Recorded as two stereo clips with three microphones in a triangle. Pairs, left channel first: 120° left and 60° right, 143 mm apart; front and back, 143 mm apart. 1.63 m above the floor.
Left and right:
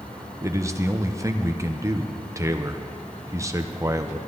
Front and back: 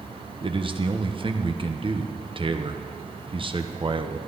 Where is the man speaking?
130° right, 1.0 m.